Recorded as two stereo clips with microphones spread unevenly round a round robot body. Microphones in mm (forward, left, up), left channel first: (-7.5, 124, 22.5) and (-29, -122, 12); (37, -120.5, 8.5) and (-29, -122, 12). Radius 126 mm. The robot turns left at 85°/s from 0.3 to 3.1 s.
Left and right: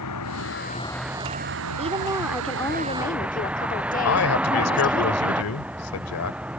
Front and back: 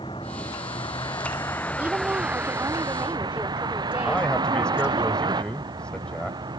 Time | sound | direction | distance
0.0 | a vehicle | 60° left | ?
1.8 | a woman speaking | 130° right | ?
4.0 | a man speaking | 80° left | ?